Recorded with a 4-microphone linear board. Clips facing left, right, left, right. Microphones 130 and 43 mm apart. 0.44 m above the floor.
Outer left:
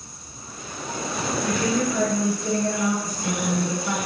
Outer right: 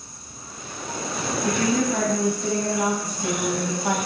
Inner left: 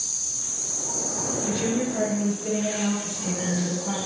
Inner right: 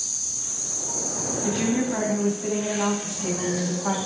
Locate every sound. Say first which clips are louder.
1.4 s a woman speaking: outer right 2 dB, inner right 3 dB; 70° right (ahead or behind), 3.5 m